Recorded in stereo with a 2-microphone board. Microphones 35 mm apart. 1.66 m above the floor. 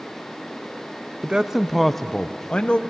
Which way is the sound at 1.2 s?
25° right (ahead or behind).